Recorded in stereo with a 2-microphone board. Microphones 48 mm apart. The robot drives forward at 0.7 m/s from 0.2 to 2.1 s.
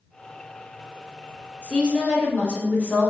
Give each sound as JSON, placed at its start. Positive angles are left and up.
{"t": 1.6, "sound": "a woman speaking", "side_deg": 20, "distance_m": 1.3}